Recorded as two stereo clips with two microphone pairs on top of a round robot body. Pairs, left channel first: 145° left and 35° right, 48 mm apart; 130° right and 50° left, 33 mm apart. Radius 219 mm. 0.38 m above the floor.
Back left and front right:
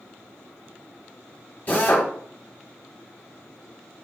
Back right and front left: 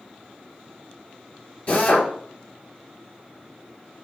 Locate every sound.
1.7 s a drill: 165° right, 4 m